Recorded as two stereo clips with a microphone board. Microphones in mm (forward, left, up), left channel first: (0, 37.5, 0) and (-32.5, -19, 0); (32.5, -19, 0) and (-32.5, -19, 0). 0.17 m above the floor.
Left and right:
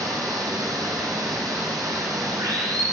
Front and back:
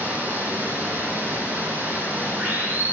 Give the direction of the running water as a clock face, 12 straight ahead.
4 o'clock.